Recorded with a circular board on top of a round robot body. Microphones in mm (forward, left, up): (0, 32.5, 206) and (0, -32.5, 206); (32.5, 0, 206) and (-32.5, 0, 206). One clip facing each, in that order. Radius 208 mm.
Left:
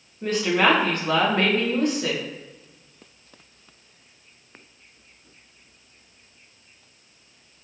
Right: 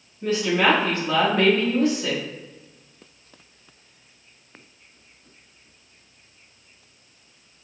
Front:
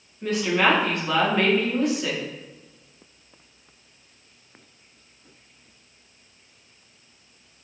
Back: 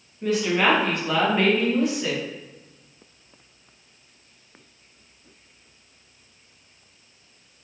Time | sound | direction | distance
0.2 | a woman speaking | 95° left | 1.5 m